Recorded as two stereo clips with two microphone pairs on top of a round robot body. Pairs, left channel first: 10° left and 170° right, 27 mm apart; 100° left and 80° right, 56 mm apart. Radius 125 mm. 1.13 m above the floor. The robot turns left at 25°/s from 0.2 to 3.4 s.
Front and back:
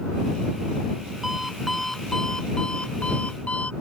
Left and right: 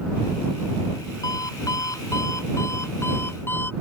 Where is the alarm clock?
110° left; by 3.7 s 55° left.